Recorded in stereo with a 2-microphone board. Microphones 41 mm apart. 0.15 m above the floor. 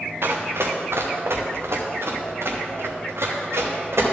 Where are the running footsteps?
70° right (ahead or behind), 1.3 m; by 4.0 s 85° right, 3 m.